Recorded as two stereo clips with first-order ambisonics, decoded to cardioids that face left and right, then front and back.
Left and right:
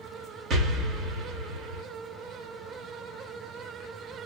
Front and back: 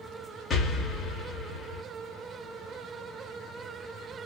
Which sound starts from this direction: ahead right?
An explosion, at 0.5 s.